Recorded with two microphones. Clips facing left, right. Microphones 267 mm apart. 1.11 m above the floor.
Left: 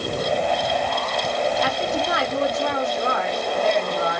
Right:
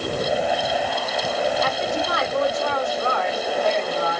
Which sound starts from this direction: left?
A woman speaking, at 1.6 s.